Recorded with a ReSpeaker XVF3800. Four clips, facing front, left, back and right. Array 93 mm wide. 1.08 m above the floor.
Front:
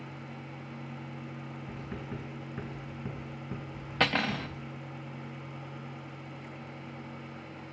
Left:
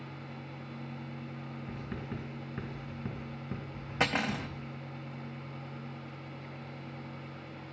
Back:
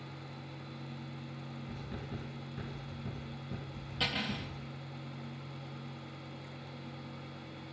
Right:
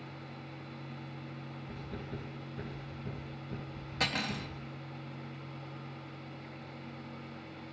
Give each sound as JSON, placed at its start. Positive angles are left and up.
{"t": 1.7, "sound": "writing", "azimuth_deg": 55, "distance_m": 4.5}
{"t": 4.0, "sound": "cutlery clinking", "azimuth_deg": 30, "distance_m": 0.7}